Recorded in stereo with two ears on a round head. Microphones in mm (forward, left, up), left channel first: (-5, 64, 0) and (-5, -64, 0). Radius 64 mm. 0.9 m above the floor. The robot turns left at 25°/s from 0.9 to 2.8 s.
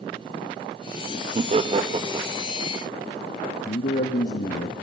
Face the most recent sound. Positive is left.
turn(degrees=60)  # may be behind; listen again after turning